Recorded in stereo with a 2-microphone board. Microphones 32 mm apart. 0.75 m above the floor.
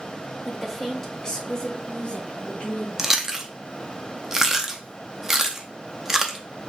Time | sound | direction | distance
0.5 | a woman speaking | 5° right (ahead or behind) | 0.9 m
3.0 | chewing | 15° right (ahead or behind) | 0.6 m